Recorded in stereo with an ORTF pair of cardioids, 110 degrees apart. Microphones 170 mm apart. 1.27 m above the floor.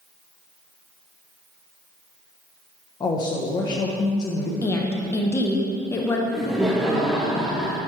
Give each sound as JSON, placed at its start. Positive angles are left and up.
{"t": 3.0, "sound": "a woman speaking", "azimuth_deg": 25, "distance_m": 0.9}
{"t": 4.6, "sound": "a woman speaking", "azimuth_deg": 15, "distance_m": 0.7}
{"t": 6.3, "sound": "laughter", "azimuth_deg": -5, "distance_m": 0.7}